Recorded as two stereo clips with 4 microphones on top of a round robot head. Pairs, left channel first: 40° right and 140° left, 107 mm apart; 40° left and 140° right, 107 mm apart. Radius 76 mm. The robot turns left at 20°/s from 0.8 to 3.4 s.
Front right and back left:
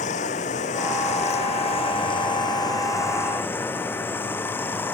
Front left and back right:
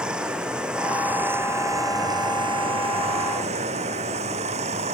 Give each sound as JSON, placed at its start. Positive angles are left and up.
{"t": 0.0, "sound": "running water", "azimuth_deg": -60}